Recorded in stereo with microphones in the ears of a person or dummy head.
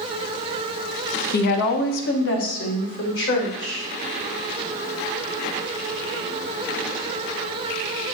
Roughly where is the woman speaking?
Left.